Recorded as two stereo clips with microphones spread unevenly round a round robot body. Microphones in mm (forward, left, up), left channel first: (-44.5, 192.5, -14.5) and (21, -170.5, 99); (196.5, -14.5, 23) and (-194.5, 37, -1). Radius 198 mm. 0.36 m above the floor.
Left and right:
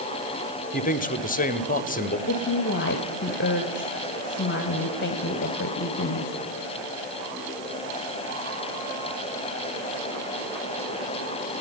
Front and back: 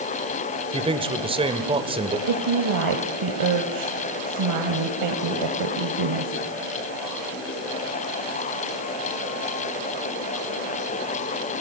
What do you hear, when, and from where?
0.7 s a man speaking: 110° left, 1.6 m
2.3 s a woman speaking: 145° left, 1.7 m